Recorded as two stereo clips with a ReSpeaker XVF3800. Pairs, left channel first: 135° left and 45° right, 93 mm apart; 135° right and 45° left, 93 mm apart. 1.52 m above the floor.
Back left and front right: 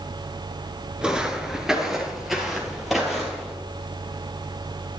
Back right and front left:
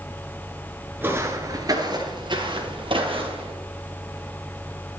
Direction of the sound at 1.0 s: 20° left.